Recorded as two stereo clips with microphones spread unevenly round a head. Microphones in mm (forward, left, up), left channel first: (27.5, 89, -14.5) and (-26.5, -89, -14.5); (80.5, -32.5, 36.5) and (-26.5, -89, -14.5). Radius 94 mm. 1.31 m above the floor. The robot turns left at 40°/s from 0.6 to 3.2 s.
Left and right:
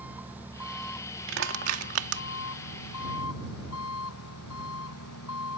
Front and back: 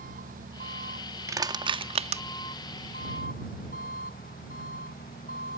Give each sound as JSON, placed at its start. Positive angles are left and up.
{"t": 0.0, "sound": "an engine running", "azimuth_deg": 170}
{"t": 1.3, "sound": "crushing", "azimuth_deg": -80}